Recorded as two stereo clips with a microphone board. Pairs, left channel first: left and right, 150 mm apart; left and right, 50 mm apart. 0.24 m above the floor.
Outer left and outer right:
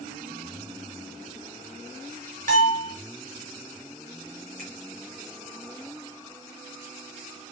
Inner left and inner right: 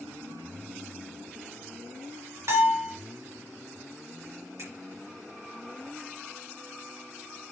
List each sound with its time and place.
2.5 s a bell: 60° right (ahead or behind), 3.5 m
4.6 s a finger snap: 75° right (ahead or behind), 5 m